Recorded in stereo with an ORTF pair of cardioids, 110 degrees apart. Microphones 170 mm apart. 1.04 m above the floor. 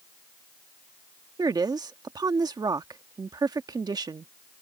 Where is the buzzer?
I don't hear a buzzer.